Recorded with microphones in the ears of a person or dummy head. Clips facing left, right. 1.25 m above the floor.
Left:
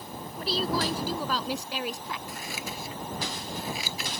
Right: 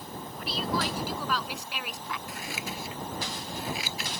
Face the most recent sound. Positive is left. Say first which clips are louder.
# even
turn(degrees=85)